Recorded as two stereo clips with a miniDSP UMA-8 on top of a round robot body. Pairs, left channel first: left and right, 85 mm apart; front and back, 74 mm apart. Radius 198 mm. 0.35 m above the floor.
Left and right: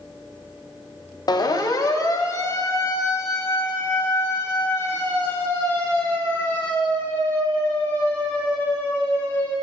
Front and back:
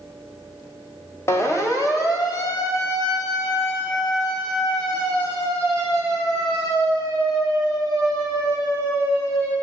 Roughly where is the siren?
Ahead left.